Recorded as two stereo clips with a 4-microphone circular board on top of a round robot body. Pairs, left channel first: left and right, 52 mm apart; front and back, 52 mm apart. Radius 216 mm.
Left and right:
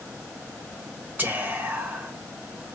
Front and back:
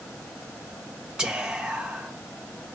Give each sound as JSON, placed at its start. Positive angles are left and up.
{"t": 1.2, "sound": "whispering", "azimuth_deg": -115, "distance_m": 1.5}